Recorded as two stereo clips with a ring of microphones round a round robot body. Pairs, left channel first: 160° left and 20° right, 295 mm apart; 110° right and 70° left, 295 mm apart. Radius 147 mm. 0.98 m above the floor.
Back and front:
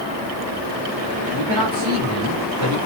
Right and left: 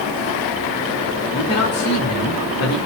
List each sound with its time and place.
1.3 s a man speaking: 55° right, 3 m